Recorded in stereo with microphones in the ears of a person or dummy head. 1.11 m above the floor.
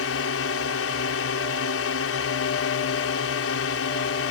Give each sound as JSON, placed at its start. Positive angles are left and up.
{"t": 0.0, "sound": "a drone", "side_deg": 65}